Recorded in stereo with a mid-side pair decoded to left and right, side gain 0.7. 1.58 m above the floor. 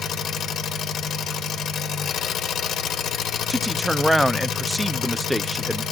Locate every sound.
0.0 s an engine running: 45° left, 1.7 m
3.5 s a man speaking: straight ahead, 0.6 m